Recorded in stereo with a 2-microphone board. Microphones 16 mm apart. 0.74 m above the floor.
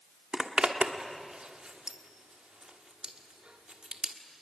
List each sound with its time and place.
0.3 s a zipper: 65° right (ahead or behind), 1.4 m